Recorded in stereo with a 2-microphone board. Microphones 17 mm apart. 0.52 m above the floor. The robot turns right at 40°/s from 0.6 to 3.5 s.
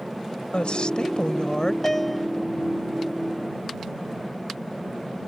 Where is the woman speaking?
95° left; by 1.7 s 140° left.